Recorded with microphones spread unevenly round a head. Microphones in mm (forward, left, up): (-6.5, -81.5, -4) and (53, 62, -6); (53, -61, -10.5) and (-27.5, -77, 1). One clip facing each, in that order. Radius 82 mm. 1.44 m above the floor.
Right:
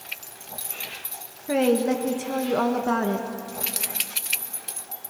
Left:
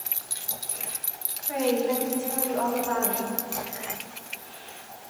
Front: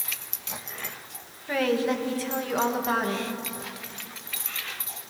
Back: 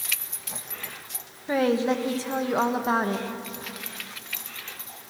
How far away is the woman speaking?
About 1.9 m.